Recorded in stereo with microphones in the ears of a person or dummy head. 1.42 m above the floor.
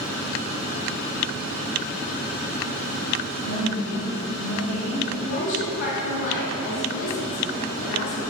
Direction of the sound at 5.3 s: 55° left (ahead or behind).